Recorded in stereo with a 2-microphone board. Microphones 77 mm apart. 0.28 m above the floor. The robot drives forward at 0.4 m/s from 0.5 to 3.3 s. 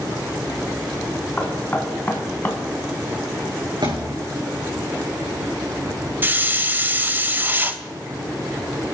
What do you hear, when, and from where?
1.4 s knocking: 20° left (ahead or behind), 2.5 m; by 2.6 s 25° left (ahead or behind), 2 m
3.8 s a thud: 75° right (ahead or behind), 4.5 m
6.2 s a hiss: 25° right (ahead or behind), 0.9 m